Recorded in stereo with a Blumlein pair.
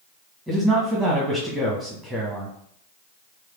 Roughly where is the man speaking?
Ahead.